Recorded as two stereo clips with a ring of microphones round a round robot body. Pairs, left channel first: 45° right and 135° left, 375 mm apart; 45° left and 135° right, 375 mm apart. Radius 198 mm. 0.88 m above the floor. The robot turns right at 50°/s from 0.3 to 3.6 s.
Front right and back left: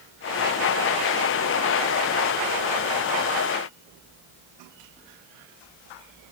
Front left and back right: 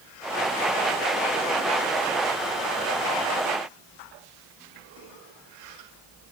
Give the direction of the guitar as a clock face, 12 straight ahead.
I don't hear a guitar.